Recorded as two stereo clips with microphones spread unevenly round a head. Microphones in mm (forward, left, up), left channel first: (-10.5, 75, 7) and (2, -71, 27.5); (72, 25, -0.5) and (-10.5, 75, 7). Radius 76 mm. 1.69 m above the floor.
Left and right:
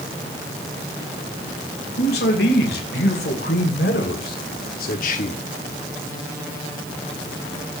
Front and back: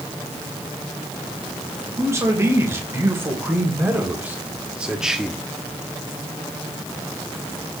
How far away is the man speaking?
About 3 m.